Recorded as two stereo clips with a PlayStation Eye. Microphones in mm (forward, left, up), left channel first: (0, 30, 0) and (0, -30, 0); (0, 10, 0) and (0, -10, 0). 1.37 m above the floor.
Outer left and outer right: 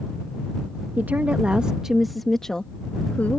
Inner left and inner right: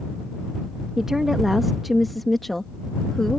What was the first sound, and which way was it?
A woman speaking, 35° right (ahead or behind).